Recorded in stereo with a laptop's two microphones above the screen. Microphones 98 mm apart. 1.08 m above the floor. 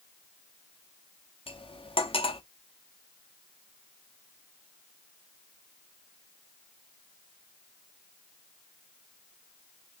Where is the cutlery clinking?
65° left (ahead or behind), 0.9 m.